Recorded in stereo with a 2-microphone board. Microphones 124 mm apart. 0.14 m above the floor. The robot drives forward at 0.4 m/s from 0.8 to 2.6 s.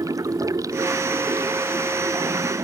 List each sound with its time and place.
0.0 s running water: 25° right (ahead or behind)